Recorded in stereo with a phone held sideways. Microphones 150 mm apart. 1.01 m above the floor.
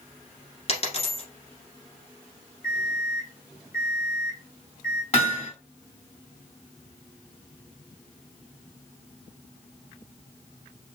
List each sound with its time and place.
0.7 s a dropped coin: 45° left (ahead or behind), 1.6 m
2.6 s an alarm clock: 60° left (ahead or behind), 1.9 m
5.1 s hammering: 45° left (ahead or behind), 2.5 m